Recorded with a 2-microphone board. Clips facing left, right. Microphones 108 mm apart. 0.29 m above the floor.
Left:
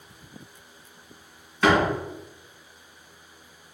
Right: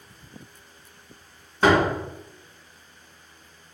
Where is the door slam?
35° right (ahead or behind), 1.9 m.